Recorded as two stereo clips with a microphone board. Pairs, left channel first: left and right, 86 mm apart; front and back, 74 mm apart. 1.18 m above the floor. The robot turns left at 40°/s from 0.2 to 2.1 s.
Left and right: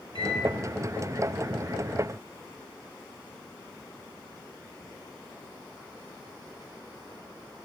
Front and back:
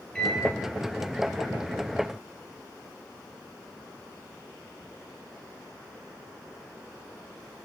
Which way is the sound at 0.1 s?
80° right.